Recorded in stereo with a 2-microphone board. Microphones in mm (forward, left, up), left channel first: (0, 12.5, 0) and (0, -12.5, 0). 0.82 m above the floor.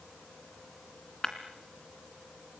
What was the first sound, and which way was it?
Breaking glass, 25° left (ahead or behind).